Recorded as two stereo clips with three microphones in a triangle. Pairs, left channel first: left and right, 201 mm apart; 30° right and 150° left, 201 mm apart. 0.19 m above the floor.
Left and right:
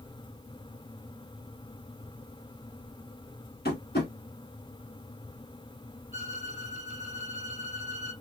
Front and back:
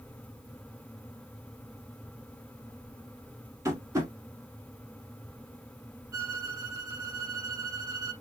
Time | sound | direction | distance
3.6 | tapping | 80° left | 1.1 m
6.1 | a violin | 135° right | 0.9 m